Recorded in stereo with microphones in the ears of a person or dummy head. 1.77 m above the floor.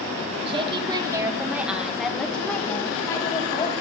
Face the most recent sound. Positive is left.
turn(degrees=35)  # may be behind; listen again after turning